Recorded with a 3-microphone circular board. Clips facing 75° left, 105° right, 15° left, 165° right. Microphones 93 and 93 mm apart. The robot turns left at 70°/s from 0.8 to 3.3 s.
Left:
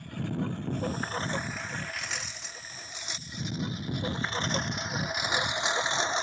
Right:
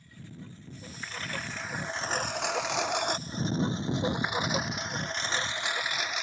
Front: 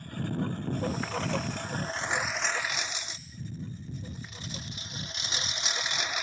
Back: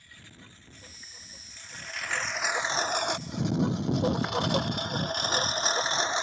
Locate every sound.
0.0 s a lawn mower: 55° left; by 6.2 s 135° left